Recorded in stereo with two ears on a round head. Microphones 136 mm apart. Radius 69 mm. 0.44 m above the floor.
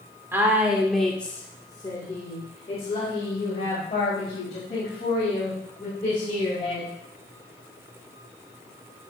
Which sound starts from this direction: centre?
A woman speaking, at 0.3 s.